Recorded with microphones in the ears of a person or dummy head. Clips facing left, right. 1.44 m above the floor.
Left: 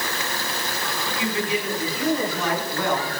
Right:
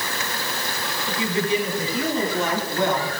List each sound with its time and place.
1.1 s a woman speaking: 35° right (ahead or behind), 8 m; by 3.1 s 20° right (ahead or behind), 6.5 m